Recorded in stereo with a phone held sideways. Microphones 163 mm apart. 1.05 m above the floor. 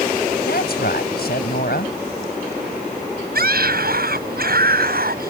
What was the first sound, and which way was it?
A woman speaking, 75° left (ahead or behind).